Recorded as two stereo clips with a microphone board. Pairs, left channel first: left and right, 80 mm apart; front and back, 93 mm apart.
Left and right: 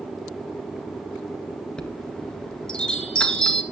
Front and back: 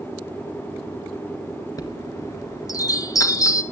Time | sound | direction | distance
1.8 | a chime | 15° left | 1.8 m